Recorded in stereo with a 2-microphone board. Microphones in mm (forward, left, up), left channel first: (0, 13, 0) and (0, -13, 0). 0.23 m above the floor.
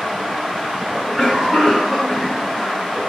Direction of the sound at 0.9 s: 20° right (ahead or behind).